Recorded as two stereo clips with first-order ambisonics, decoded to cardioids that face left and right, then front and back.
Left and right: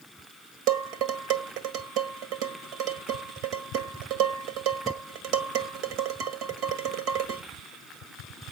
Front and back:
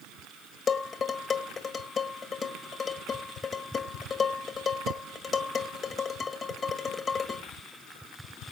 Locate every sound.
0.7 s dishes clattering: 65° right, 1.8 m